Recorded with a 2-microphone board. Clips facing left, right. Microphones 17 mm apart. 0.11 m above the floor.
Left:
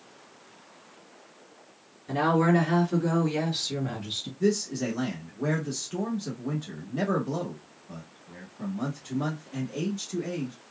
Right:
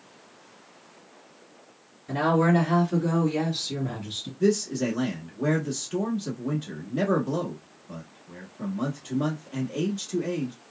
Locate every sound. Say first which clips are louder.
2.1 s a woman speaking: right 1 dB; 5° left (ahead or behind), 2 m; by 4.3 s 35° left (ahead or behind), 2 m
4.4 s a man speaking: right 3 dB; 10° right (ahead or behind), 1.1 m